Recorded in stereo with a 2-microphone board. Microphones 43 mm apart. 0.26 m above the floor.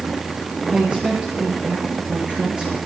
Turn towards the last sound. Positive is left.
turn(degrees=-20)  # may be behind; listen again after turning